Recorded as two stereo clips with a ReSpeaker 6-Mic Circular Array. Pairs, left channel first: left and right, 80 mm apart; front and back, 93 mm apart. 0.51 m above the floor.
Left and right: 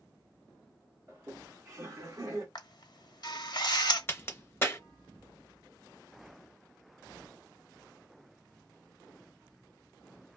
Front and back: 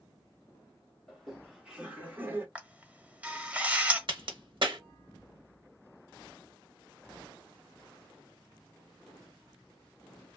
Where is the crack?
150° left, 0.7 m.